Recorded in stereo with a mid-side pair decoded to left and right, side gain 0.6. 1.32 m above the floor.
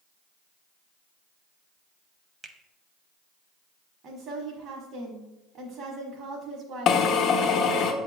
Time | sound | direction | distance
2.4 | a finger snap | 20° right | 0.7 m
4.0 | a woman speaking | 55° right | 0.9 m
6.9 | a drill | 55° left | 0.6 m